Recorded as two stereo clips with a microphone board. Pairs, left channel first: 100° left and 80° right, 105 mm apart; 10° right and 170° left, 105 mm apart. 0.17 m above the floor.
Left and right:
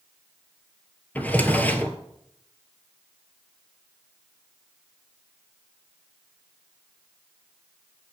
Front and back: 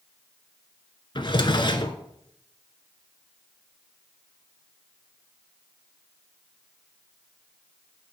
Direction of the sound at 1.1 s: 25° left.